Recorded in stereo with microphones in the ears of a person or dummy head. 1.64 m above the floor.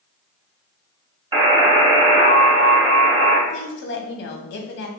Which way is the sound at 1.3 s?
25° right (ahead or behind).